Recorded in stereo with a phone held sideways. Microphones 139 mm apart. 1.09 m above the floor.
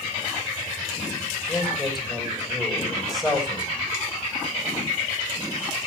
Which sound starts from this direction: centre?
A man speaking, at 1.5 s.